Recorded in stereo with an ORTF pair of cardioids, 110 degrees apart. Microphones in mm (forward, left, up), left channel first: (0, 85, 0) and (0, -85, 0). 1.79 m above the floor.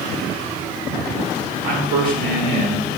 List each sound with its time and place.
1.6 s a man speaking: 65° right, 2.5 m; by 2.9 s 50° right, 2.5 m